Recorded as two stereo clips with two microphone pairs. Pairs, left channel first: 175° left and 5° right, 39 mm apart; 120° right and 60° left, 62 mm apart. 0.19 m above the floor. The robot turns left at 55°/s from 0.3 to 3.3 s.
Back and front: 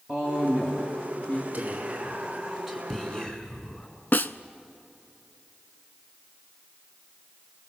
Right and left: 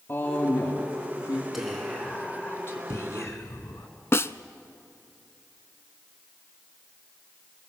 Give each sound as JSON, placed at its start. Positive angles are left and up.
{"t": 0.1, "sound": "a woman speaking", "azimuth_deg": -65, "distance_m": 3.0}
{"t": 1.5, "sound": "whispering", "azimuth_deg": -25, "distance_m": 2.5}
{"t": 4.1, "sound": "a snare drum", "azimuth_deg": -160, "distance_m": 0.6}